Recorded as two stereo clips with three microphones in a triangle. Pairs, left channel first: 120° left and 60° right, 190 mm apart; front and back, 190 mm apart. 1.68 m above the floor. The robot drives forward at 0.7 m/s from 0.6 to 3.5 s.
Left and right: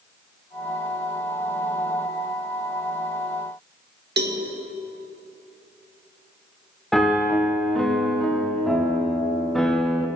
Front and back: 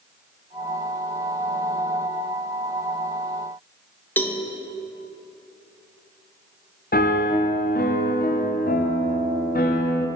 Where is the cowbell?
80° right, 0.5 m.